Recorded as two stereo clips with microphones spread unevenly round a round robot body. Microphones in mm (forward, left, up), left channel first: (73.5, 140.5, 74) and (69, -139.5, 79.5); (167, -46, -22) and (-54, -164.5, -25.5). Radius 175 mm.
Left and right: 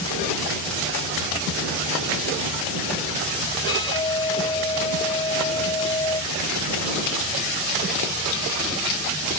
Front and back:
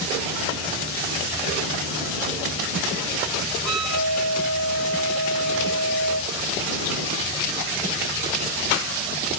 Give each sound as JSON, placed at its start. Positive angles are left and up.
{"t": 3.6, "sound": "a flute", "azimuth_deg": 165}